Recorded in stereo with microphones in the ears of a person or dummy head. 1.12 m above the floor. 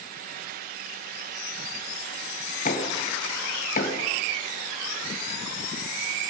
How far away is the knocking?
About 4 m.